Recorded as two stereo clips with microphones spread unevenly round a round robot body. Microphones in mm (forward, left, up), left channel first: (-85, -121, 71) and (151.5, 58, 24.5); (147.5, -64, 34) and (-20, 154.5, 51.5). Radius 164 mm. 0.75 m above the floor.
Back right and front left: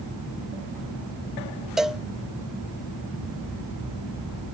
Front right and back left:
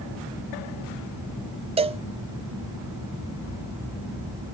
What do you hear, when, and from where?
1.8 s a cowbell: 95° left, 0.6 m